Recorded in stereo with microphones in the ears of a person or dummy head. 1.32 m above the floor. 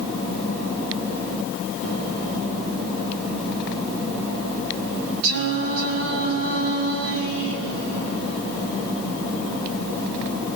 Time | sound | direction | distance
5.2 | singing | 80° right | 4 m